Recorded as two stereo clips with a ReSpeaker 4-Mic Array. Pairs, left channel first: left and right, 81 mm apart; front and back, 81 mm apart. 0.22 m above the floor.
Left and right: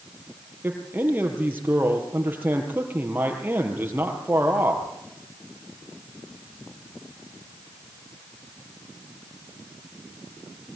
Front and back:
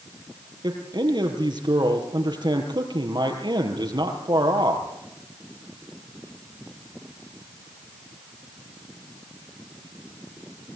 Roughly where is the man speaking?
Behind right.